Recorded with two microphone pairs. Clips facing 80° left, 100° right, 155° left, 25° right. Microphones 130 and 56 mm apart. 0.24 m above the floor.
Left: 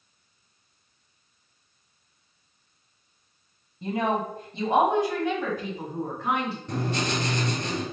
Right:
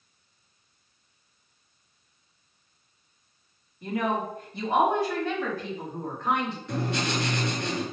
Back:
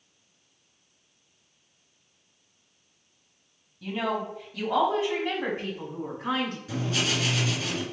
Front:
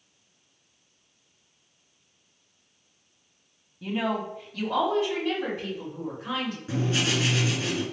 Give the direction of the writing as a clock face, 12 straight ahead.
11 o'clock.